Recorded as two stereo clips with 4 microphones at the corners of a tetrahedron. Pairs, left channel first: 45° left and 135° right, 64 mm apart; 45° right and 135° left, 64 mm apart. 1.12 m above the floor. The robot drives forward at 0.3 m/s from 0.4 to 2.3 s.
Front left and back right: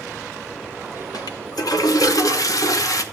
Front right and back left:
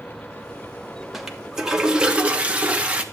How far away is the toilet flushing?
About 1.1 m.